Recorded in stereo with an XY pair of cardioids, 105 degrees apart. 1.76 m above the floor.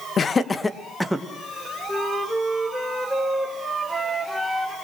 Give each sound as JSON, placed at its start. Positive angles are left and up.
{"t": 0.2, "sound": "laughter", "azimuth_deg": 50, "distance_m": 1.7}
{"t": 1.9, "sound": "a flute", "azimuth_deg": -5, "distance_m": 4.5}